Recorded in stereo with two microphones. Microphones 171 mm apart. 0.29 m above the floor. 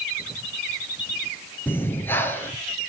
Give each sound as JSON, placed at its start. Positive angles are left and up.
{"t": 1.7, "sound": "breathing", "side_deg": 15, "distance_m": 3.0}